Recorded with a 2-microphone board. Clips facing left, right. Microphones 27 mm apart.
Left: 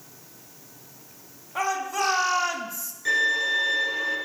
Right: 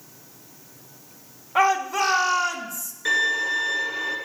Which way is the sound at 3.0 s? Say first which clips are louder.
Right 1 dB; 20° right (ahead or behind).